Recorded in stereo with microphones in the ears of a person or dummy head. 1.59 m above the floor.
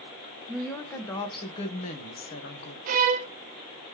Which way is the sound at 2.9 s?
45° right (ahead or behind).